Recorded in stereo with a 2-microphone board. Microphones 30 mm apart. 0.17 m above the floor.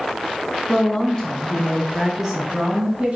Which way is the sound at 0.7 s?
45° left (ahead or behind).